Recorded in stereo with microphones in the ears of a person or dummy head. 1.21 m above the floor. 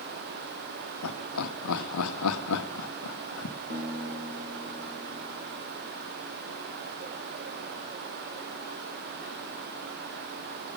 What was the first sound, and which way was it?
Laughter, 80° left.